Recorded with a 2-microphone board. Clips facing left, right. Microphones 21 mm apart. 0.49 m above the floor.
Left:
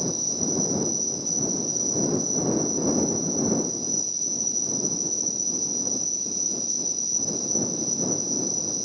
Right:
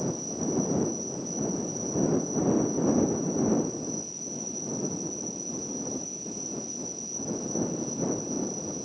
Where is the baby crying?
No baby crying in this recording.